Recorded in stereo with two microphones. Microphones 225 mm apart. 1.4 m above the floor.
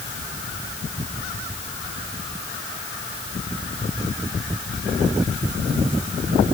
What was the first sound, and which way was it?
Only background noise.